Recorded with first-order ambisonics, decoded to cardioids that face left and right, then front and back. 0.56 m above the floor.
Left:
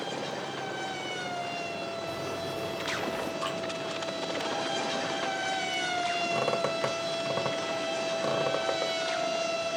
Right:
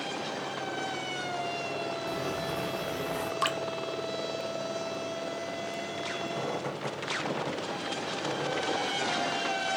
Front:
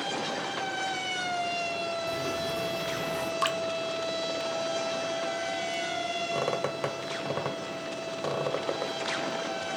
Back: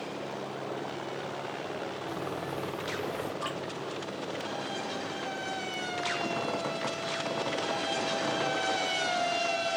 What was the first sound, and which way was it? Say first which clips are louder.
Footsteps: right 1 dB, front 5 dB; 20° right.